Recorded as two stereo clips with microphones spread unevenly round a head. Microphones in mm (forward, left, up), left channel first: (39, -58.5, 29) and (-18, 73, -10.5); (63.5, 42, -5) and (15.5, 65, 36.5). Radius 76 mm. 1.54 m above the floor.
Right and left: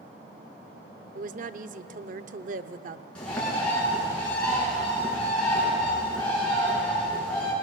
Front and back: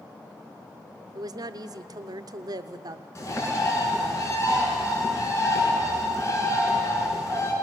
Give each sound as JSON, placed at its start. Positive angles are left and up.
{"t": 1.1, "sound": "a woman speaking", "azimuth_deg": 145, "distance_m": 0.8}
{"t": 3.1, "sound": "a bird", "azimuth_deg": 15, "distance_m": 7.5}